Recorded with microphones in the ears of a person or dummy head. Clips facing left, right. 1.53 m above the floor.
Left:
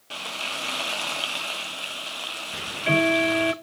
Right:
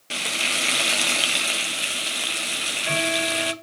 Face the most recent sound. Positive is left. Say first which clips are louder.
# left 7 dB
turn(degrees=45)  # may be behind; listen again after turning